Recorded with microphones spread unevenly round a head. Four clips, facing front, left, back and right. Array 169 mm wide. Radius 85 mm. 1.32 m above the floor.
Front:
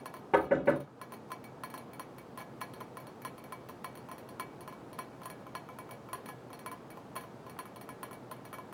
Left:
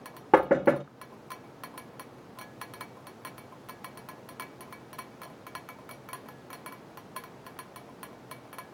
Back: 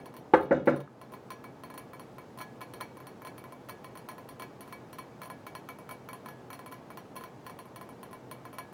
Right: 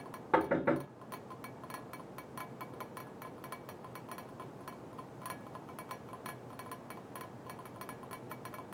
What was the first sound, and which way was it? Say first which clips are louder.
Knocking: left 9 dB, back 4 dB; 140° left.